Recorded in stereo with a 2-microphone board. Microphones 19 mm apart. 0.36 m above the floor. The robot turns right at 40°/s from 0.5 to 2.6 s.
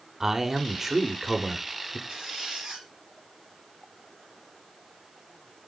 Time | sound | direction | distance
0.2 | a man speaking | 20° right (ahead or behind) | 1.0 m
2.1 | a squeak | 80° right | 4 m